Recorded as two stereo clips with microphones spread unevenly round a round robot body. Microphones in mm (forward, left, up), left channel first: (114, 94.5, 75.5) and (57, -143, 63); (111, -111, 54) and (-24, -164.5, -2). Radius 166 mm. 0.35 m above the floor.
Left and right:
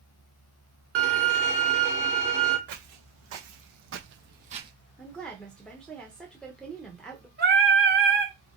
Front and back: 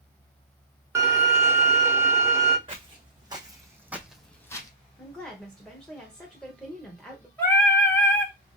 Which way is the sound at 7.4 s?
75° right.